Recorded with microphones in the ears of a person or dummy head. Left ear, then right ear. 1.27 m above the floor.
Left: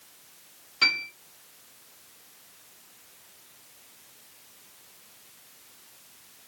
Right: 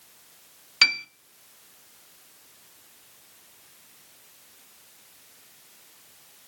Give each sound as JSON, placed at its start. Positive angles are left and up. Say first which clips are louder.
{"t": 0.8, "sound": "a piano", "louder": "right 3 dB", "side_deg": -40, "distance_m": 0.6}